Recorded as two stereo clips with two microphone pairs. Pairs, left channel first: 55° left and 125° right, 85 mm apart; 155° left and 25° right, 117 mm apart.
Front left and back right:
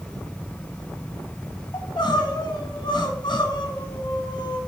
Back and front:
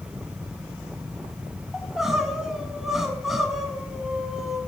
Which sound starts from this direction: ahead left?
Crying, at 1.7 s.